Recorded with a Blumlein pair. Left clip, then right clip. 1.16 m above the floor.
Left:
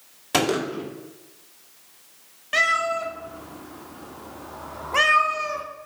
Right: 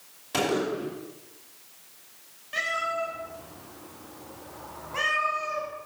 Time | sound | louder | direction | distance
0.3 | a gunshot | left 4 dB | 25° left | 2.5 m
2.5 | a cat meowing | left 7 dB | 30° left | 1.4 m